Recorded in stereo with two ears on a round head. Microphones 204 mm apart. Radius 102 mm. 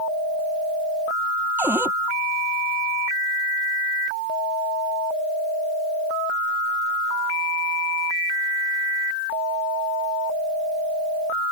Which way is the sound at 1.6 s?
10° right (ahead or behind).